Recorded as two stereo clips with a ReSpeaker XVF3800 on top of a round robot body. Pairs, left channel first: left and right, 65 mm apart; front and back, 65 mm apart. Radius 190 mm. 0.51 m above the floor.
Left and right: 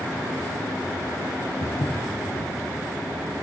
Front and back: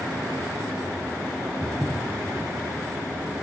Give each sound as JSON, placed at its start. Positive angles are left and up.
{"t": 1.6, "sound": "footsteps", "azimuth_deg": 80, "distance_m": 0.9}